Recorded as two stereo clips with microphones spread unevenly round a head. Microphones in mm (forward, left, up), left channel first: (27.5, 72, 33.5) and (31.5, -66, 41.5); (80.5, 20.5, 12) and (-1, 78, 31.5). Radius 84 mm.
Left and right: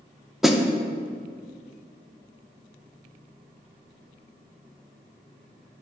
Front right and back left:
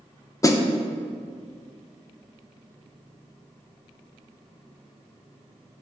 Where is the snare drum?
Straight ahead, 0.7 m.